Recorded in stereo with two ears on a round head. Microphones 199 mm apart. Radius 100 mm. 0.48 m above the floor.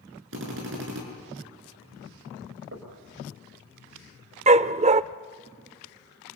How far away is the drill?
About 6.5 m.